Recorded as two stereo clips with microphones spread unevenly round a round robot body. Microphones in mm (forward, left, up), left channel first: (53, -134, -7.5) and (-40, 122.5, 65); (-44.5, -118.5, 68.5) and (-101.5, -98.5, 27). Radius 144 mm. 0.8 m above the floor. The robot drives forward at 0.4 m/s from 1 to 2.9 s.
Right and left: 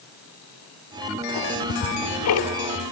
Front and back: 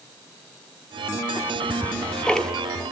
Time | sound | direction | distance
1.4 | ticking | 85° right | 1.3 m